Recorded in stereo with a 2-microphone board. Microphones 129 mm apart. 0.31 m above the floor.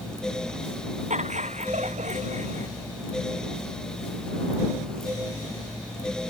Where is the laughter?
65° right (ahead or behind); by 2.7 s 70° right (ahead or behind).